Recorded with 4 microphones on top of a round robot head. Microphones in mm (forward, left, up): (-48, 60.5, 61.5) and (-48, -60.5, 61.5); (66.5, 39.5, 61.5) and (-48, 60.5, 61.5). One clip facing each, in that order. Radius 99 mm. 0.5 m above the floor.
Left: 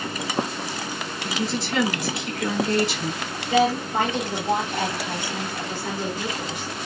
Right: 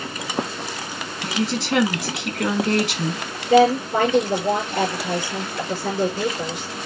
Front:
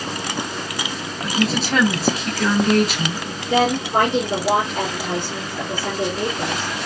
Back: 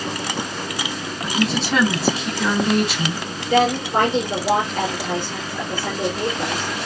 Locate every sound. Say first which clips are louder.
1.2 s a woman speaking: right 4 dB, front 1 dB; 100° right, 5.5 m
3.5 s a woman speaking: right 6 dB, even; 80° right, 6.5 m